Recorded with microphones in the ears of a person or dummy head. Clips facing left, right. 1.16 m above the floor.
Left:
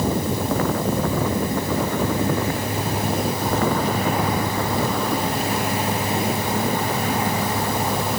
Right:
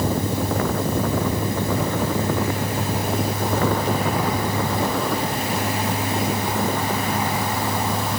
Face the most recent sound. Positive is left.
No sound to turn to.